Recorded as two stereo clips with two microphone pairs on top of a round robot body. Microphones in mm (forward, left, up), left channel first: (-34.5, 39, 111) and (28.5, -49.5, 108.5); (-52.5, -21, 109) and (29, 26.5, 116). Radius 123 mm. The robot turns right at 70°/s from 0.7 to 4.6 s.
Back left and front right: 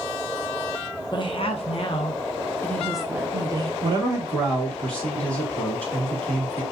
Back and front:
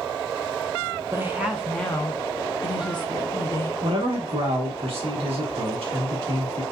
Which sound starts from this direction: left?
A woman speaking, at 1.1 s.